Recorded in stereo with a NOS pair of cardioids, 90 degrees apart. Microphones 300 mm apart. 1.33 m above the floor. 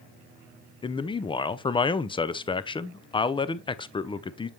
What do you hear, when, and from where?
0.8 s a man speaking: 15° left, 0.5 m